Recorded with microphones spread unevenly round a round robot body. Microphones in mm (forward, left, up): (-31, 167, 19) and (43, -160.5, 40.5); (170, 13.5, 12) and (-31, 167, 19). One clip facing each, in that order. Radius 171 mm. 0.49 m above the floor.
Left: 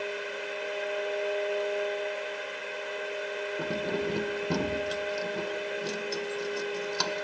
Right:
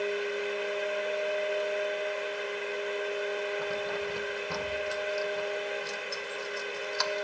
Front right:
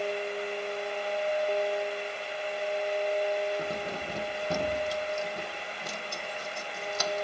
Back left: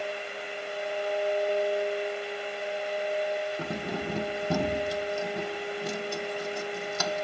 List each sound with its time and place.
3.6 s keys jangling: 155° left